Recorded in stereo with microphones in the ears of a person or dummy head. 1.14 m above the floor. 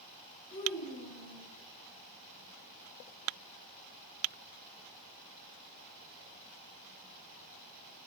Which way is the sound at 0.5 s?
30° left (ahead or behind).